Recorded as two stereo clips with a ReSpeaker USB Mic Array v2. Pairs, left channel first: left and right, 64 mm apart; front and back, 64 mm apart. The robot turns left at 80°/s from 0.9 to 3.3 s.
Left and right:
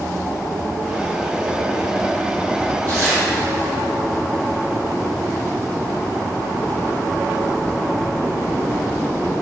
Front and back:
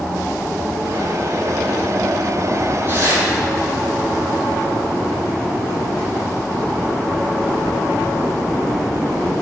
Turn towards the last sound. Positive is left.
turn(degrees=-155)